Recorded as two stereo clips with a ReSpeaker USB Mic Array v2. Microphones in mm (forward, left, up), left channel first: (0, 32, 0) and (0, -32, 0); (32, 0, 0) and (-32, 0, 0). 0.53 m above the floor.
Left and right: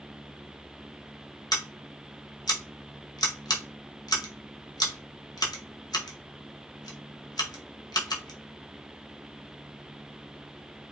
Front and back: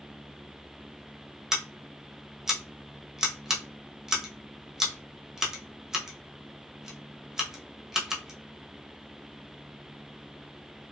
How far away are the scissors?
About 0.7 m.